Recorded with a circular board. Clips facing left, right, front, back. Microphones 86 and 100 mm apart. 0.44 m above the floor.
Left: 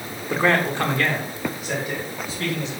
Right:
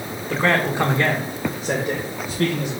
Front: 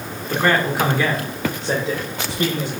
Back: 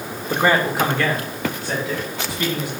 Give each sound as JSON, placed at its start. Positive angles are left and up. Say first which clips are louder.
{"t": 0.3, "sound": "a man speaking", "louder": "even, back 1 dB", "azimuth_deg": 145, "distance_m": 1.2}